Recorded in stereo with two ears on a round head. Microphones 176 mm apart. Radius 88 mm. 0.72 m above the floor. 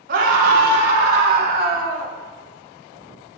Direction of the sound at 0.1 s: 60° right (ahead or behind).